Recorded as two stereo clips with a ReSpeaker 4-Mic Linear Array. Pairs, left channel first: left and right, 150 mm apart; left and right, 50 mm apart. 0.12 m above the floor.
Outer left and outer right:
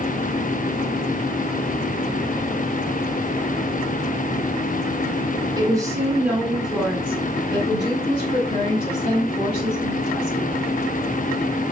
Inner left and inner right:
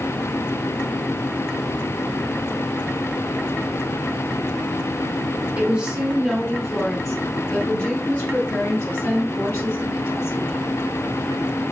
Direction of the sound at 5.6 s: 25° right (ahead or behind).